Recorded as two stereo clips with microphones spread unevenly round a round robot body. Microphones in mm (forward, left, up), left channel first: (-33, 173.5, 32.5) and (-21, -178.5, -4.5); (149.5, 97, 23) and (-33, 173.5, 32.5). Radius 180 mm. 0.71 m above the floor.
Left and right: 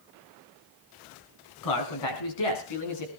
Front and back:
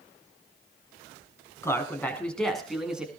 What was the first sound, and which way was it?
A man speaking, 55° left.